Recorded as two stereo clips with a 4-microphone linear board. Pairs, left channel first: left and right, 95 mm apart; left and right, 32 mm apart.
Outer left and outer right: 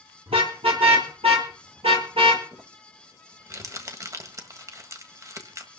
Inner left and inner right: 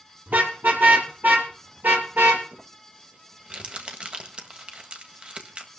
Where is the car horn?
80° right, 5 m; by 2.4 s 70° right (ahead or behind), 3.5 m.